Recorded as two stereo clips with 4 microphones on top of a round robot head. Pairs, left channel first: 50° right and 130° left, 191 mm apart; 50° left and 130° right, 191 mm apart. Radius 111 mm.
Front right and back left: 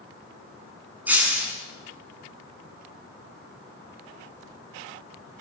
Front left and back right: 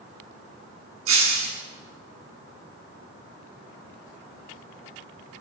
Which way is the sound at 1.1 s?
145° right.